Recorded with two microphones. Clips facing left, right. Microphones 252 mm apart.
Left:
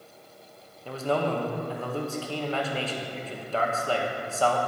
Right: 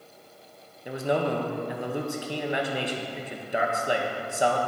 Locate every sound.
0.8 s a man speaking: 15° right (ahead or behind), 0.8 m